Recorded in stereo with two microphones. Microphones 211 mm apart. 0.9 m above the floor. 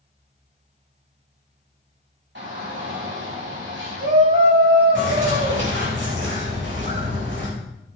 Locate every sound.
2.4 s a shout: 65° right (ahead or behind), 4.5 m
5.0 s a bird: 65° right (ahead or behind), 4.5 m